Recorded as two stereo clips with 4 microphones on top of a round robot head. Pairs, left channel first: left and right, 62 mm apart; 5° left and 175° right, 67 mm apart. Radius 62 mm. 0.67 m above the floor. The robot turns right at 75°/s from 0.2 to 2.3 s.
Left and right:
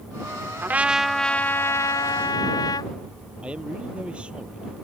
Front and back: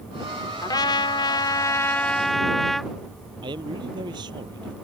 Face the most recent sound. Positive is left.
turn(degrees=-165)